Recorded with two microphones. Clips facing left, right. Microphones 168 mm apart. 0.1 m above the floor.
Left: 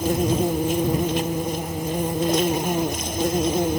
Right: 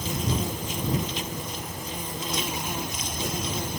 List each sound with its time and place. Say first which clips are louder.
0.0 s an insect: left 9 dB; 60° left (ahead or behind)